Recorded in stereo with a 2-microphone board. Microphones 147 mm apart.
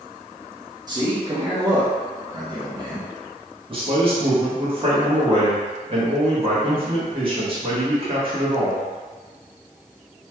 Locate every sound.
0.9 s a man speaking: 30° right (ahead or behind), 0.9 m
3.7 s a man speaking: 35° right (ahead or behind), 1.2 m